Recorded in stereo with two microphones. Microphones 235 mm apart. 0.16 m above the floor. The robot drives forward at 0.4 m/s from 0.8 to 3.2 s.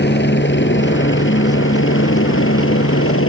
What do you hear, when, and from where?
0.0 s a helicopter: 50° left (ahead or behind); by 3.3 s 65° left (ahead or behind)